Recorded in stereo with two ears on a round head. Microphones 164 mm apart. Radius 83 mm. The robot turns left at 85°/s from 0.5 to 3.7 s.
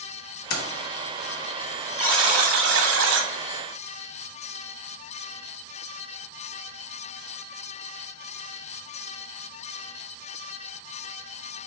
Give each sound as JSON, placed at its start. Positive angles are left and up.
{"t": 0.5, "sound": "keys jangling", "side_deg": 50, "distance_m": 0.9}
{"t": 2.0, "sound": "a buzzer", "azimuth_deg": -5, "distance_m": 1.1}